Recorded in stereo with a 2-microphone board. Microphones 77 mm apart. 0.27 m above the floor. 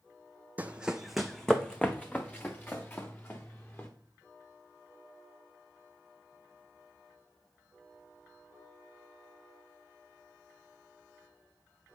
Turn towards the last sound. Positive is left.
turn(degrees=30)  # may be behind; listen again after turning